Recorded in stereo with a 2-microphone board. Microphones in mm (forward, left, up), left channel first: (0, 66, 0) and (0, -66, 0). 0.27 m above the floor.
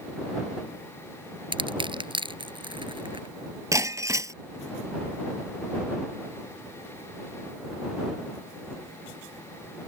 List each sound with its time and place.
1.5 s crushing: 40° right (ahead or behind)
3.7 s breaking glass: 25° right (ahead or behind)